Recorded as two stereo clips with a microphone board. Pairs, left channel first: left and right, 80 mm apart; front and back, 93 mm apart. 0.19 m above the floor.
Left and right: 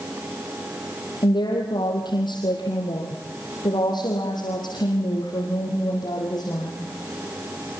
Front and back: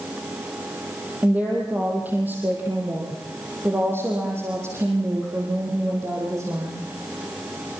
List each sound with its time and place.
1.2 s a woman speaking: 105° left, 5 m; by 6.9 s 125° left, 8 m